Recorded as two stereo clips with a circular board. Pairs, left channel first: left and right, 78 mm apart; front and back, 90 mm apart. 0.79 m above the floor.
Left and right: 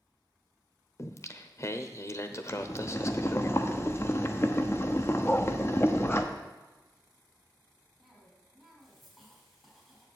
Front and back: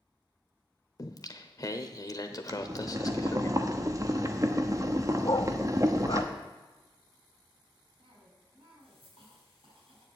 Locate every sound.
1.0 s singing: 45° left, 0.8 m
2.5 s boiling: 135° left, 0.9 m
5.2 s a dog barking: 25° left, 0.6 m
8.0 s a cough: straight behind, 5.5 m